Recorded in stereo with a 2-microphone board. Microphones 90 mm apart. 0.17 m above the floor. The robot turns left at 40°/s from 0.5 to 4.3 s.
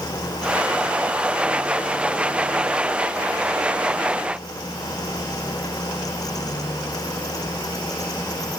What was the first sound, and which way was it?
Only background noise.